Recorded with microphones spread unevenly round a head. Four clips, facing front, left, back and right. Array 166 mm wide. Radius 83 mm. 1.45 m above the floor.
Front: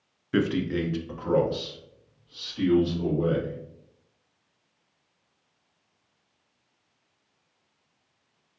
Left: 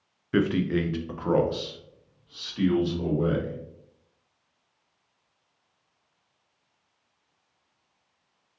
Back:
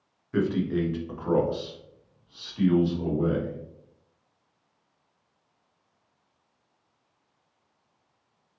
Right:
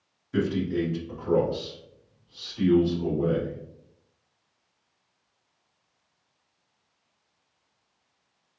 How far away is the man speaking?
About 0.7 m.